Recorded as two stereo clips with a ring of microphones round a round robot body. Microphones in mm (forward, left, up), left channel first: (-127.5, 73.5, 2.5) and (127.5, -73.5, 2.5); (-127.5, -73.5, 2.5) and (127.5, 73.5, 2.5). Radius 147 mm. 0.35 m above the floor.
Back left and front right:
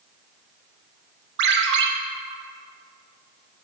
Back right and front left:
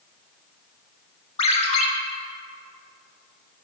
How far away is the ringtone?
About 0.7 m.